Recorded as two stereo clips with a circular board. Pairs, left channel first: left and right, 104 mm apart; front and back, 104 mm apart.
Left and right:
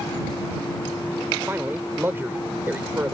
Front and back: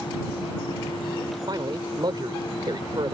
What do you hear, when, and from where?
1.5 s a man speaking: 155° right